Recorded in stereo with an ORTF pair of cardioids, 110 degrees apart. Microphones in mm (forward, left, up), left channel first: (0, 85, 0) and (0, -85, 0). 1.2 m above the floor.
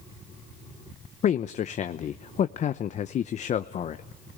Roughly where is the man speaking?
Ahead left.